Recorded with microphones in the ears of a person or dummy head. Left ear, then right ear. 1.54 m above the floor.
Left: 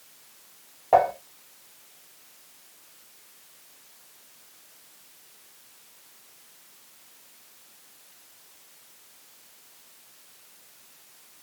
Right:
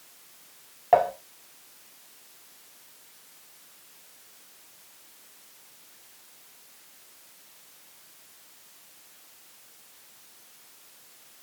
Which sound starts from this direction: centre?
Dishes clattering, at 0.9 s.